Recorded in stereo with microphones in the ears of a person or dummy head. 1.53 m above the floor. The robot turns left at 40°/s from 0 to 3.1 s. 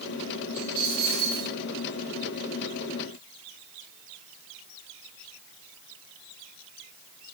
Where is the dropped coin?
10° right, 3.5 m; by 1.5 s 50° right, 3.5 m.